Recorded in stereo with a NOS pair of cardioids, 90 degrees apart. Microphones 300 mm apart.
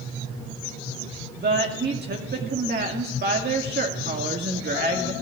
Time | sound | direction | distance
1.4 | a woman speaking | 35° right | 2.0 m